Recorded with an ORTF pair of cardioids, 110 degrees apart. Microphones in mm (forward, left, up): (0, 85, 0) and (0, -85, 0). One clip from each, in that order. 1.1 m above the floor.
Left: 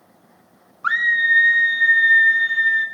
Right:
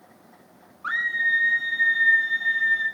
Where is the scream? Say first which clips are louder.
Left 6 dB; 50° left, 2.0 m; by 2.9 s 40° left, 4.5 m.